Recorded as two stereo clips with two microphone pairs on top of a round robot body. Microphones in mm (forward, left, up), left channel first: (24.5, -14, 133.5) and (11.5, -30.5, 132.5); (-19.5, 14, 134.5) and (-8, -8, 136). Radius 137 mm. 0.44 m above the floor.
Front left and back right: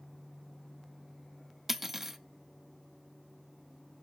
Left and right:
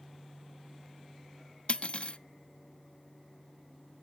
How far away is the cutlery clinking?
About 0.5 m.